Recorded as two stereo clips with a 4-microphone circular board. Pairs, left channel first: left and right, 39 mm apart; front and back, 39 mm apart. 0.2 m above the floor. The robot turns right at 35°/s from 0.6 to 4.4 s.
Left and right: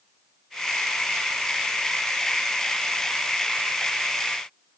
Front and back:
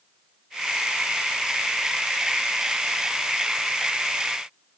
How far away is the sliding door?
I don't hear a sliding door.